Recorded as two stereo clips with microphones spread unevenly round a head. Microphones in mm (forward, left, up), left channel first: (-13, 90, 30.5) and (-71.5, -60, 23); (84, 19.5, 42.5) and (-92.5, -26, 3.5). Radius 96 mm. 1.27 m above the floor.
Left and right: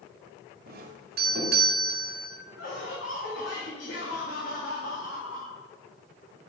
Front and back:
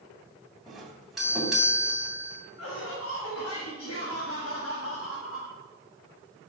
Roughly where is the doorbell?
Right.